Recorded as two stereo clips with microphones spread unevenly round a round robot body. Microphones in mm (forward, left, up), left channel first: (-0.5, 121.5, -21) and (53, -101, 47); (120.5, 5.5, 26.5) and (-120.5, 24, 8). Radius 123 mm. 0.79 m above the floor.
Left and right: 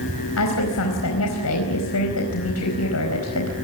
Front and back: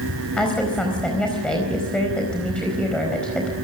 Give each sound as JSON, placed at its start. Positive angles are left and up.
{"t": 0.4, "sound": "a woman speaking", "azimuth_deg": 80, "distance_m": 4.5}